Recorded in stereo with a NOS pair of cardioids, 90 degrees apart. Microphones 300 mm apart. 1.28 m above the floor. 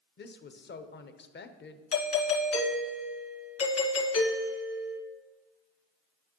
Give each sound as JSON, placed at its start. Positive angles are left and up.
{"t": 0.2, "sound": "a woman speaking", "azimuth_deg": 35, "distance_m": 0.8}
{"t": 1.9, "sound": "a doorbell", "azimuth_deg": 50, "distance_m": 1.9}